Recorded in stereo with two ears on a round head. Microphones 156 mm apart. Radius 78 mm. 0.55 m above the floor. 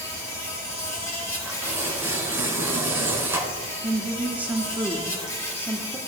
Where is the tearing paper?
15° right (ahead or behind), 2 m.